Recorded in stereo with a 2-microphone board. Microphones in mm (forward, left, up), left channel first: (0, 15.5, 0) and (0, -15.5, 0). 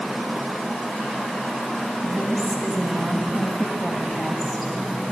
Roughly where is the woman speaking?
Centre.